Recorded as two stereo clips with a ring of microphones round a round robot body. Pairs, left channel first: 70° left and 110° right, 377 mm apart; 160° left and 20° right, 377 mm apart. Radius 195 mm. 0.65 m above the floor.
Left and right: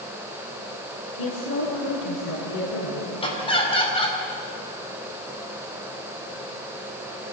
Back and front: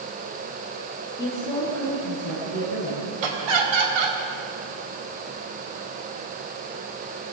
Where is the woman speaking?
75° left, 10 m; by 3.1 s 70° left, 10 m.